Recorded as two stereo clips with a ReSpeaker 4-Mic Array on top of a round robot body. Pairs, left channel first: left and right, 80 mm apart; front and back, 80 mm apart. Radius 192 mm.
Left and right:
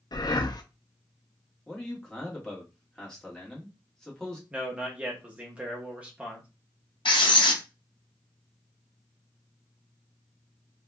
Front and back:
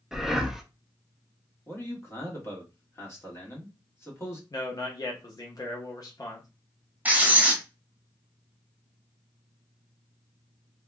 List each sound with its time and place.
0.1 s breathing: 95° left, 0.6 m
1.7 s a man speaking: 15° left, 1.5 m
4.5 s a man speaking: 20° right, 1.0 m
7.0 s writing: 110° left, 0.9 m